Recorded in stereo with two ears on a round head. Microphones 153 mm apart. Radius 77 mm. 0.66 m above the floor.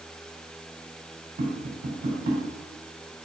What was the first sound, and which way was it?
Tapping, 55° right (ahead or behind).